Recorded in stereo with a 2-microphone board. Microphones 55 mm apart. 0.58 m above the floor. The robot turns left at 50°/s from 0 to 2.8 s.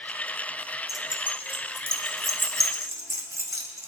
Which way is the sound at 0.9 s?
5° right (ahead or behind).